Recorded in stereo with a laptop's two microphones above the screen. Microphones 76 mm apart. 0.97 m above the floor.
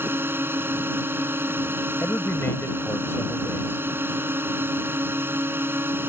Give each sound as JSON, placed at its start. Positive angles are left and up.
{"t": 0.0, "sound": "a drone", "side_deg": -30}
{"t": 2.0, "sound": "a man speaking", "side_deg": 30}